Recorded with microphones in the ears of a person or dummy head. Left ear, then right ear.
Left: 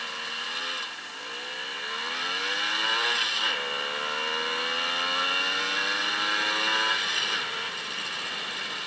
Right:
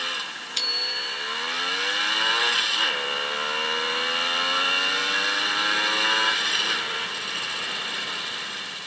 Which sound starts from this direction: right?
A bicycle bell, at 0.6 s.